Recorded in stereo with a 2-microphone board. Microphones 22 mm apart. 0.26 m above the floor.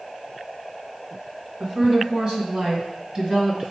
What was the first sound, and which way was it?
A woman speaking, 60° right (ahead or behind).